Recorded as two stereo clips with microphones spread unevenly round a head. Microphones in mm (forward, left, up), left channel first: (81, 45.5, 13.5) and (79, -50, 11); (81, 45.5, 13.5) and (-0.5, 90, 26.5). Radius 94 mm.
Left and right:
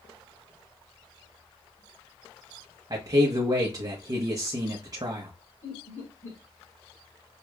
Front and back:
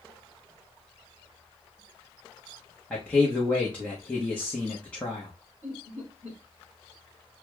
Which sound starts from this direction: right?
A man speaking, at 2.9 s.